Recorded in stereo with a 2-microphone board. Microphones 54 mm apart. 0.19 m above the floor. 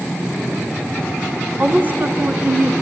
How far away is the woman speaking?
About 1.7 m.